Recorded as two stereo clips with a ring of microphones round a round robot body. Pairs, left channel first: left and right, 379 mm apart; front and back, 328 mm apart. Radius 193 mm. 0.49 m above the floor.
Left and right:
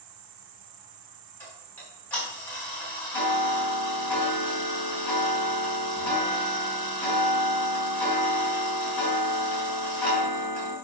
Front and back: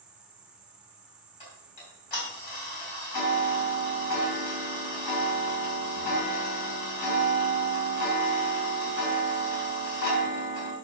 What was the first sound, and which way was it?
An insect, 95° right.